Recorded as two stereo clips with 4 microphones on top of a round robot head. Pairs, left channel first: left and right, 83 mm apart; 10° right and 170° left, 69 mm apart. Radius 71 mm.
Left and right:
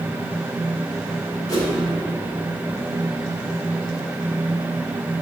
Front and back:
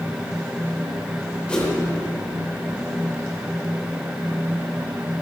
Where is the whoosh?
60° left, 2.5 m.